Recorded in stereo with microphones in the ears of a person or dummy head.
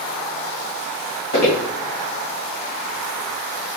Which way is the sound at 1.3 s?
50° left (ahead or behind).